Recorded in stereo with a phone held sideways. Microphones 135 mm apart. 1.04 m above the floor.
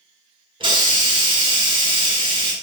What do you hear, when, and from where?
0.6 s a hiss: 35° right (ahead or behind), 1.0 m